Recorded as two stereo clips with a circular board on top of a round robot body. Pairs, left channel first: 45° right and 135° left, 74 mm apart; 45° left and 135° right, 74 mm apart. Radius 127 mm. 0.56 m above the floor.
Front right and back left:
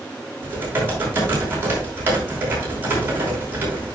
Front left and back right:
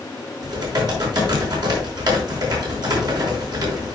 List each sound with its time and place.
0.4 s typing on a keyboard: 160° right, 5.5 m